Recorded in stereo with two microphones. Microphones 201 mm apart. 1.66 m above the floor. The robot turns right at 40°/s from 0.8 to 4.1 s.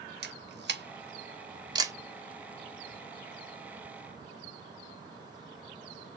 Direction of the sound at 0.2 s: 60° right (ahead or behind).